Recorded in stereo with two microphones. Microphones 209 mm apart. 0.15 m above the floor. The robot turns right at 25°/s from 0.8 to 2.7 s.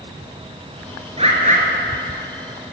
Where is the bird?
30° right (ahead or behind), 2.5 m; by 1.6 s 40° right (ahead or behind), 2.5 m.